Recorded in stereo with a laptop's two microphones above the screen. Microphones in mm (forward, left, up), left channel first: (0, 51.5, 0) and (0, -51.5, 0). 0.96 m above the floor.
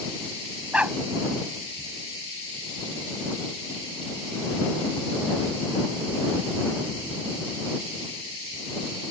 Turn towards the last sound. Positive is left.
turn(degrees=-15)  # may be behind; listen again after turning